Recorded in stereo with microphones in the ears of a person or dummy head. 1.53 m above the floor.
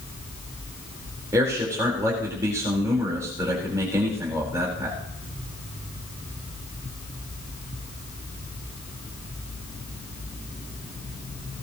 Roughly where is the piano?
I don't hear a piano.